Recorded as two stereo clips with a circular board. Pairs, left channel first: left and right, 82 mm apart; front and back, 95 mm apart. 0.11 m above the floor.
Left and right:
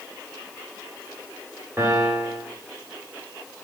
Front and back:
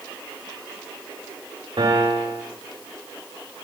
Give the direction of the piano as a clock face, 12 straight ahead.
5 o'clock.